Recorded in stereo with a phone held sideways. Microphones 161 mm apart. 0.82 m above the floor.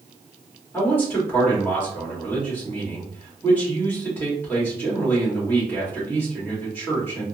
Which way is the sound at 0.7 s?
15° left (ahead or behind).